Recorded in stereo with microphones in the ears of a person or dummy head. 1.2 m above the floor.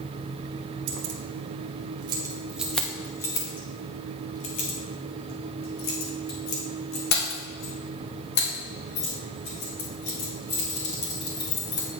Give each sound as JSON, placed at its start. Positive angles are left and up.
{"t": 0.9, "sound": "keys jangling", "side_deg": -55, "distance_m": 1.0}